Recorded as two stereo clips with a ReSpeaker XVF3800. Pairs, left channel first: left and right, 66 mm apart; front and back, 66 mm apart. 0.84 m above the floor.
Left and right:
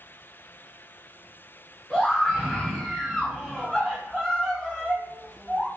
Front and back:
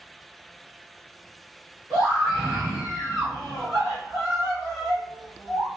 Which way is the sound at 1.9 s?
170° left.